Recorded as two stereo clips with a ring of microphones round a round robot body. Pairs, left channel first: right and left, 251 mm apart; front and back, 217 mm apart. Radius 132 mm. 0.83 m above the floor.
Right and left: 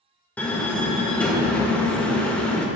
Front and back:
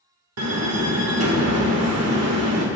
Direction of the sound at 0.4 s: 175° right.